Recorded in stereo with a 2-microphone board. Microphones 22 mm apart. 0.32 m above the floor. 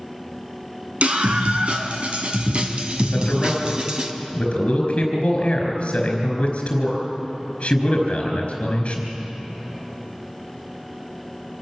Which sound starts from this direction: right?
A scream, at 1.0 s.